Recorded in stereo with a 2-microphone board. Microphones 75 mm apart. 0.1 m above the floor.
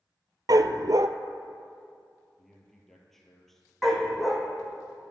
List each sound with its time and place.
0.5 s a dog barking: 65° right (ahead or behind), 0.5 m
2.4 s a man speaking: 5° left (ahead or behind), 2.5 m
3.8 s a dog barking: centre (ahead or behind), 1.9 m